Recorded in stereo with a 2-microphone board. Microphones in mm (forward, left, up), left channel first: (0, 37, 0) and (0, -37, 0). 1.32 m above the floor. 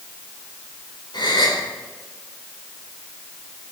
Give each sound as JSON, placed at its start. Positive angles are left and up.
{"t": 1.1, "sound": "a gasp", "side_deg": 70, "distance_m": 4.0}